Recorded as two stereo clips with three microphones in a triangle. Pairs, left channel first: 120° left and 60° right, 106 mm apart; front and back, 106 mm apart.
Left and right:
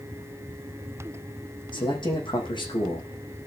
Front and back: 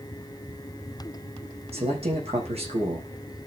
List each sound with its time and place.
1.7 s a man speaking: 160° left, 6.5 m